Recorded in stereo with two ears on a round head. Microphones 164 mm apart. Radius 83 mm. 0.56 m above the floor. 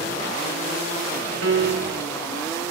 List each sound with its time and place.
1.4 s a piano: 65° right (ahead or behind), 1.4 m